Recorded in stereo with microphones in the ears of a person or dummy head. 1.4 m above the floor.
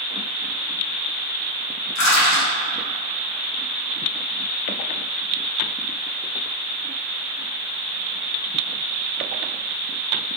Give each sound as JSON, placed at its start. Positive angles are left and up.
{"t": 1.9, "sound": "crushing", "side_deg": 60, "distance_m": 1.7}